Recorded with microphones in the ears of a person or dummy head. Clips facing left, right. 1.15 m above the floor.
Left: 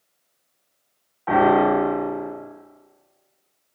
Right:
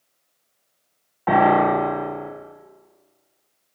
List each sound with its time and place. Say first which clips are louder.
1.3 s a piano: even; 60° right (ahead or behind), 0.9 m